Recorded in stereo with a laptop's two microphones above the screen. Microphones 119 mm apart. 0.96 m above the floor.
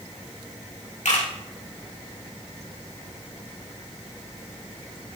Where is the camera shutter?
75° left (ahead or behind), 1.8 m.